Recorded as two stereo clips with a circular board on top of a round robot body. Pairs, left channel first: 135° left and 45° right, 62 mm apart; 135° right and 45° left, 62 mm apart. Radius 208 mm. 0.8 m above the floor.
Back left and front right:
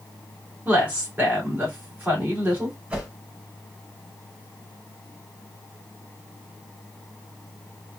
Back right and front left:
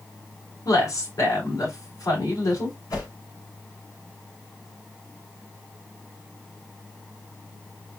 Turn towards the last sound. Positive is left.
turn(degrees=-115)